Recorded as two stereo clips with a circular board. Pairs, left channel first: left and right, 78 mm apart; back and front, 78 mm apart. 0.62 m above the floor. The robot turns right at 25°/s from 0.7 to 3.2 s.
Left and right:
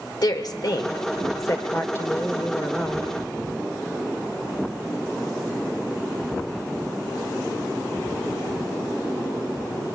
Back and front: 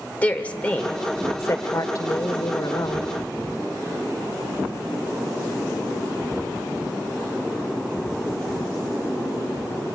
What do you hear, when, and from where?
0.2 s a woman speaking: 110° left, 1.8 m; by 3.1 s 170° left, 1.8 m